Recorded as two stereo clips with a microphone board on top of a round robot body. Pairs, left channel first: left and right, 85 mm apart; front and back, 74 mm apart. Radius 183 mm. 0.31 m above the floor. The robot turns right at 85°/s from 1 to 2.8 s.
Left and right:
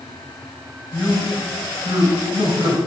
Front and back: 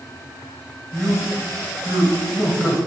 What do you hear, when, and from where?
0.9 s a man speaking: 155° left, 2.5 m; by 2.8 s 55° right, 2.5 m